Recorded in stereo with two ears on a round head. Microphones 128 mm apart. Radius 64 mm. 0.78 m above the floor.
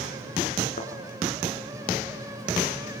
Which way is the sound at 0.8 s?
55° left (ahead or behind).